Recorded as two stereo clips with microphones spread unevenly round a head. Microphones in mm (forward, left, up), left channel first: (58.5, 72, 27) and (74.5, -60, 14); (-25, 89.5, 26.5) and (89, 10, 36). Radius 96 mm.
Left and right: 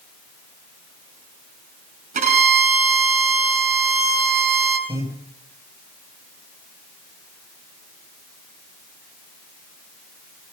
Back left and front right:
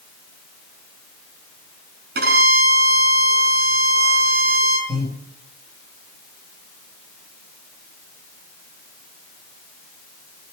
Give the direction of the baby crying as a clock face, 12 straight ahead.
No baby crying in this recording.